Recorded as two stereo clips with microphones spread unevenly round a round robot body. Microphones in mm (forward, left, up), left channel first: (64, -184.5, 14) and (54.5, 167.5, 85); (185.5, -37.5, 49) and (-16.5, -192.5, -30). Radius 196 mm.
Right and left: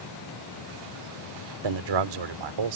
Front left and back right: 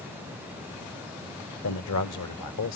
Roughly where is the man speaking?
Left.